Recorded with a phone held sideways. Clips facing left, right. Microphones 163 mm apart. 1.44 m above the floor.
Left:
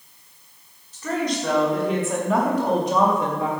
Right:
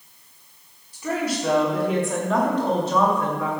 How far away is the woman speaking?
About 4.5 m.